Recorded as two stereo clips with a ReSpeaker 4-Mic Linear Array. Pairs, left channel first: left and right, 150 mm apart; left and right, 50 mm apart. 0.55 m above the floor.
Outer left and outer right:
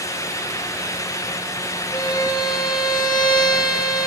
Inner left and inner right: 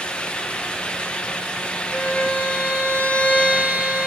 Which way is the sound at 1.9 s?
30° left (ahead or behind).